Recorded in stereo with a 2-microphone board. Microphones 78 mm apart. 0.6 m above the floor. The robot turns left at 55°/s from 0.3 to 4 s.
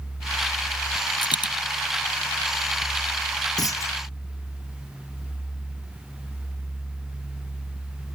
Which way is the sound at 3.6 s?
55° left (ahead or behind).